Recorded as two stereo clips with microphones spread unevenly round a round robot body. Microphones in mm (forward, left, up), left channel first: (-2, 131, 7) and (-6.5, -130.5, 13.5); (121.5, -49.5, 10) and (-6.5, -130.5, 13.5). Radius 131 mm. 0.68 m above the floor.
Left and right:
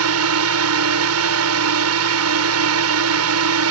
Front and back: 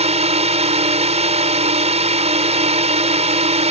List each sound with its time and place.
0.0 s a drone: 110° right